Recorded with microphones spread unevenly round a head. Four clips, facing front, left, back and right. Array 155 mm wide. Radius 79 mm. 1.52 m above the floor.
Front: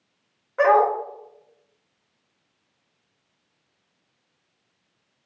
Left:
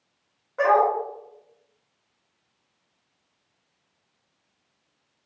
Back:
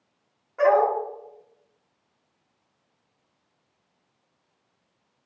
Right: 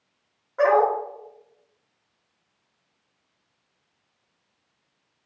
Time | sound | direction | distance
0.6 | a dog barking | 5° left | 0.9 m